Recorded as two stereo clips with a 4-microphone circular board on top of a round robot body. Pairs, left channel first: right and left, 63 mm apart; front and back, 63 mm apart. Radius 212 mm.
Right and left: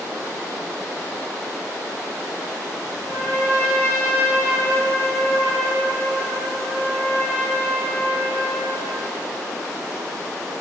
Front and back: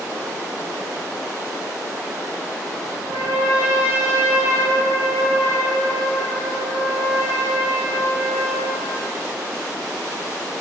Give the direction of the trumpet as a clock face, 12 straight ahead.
5 o'clock.